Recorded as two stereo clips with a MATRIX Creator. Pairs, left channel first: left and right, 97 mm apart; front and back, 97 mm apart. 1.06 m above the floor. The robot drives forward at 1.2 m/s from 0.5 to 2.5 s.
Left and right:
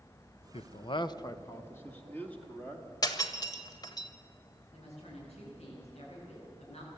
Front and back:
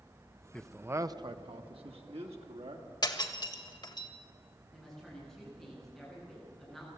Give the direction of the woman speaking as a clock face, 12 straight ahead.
9 o'clock.